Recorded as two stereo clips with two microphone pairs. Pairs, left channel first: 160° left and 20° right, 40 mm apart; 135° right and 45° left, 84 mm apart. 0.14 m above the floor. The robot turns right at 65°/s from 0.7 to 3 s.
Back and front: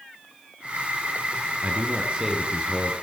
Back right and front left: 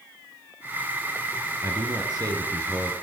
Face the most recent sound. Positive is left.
turn(degrees=100)